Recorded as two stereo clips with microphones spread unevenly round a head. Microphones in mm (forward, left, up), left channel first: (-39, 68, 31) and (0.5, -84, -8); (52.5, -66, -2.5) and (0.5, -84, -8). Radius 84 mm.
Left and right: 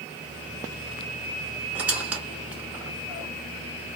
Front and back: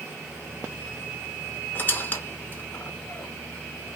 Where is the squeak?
20° left, 0.6 m.